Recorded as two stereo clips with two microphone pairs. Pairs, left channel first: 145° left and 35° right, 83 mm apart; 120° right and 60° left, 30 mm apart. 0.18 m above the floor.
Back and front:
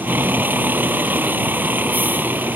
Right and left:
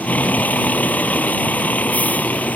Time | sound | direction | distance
0.0 | a vehicle | 100° right | ?